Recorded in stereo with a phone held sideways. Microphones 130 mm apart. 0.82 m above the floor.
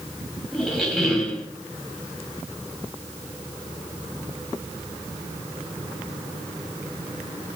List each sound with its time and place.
0.5 s a squeak: centre (ahead or behind), 3 m